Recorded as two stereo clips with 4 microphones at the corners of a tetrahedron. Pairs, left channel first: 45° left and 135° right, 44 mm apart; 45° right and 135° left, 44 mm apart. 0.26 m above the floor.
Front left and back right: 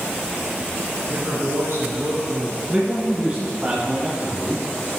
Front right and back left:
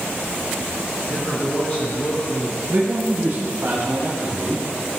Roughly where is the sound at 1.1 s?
Right.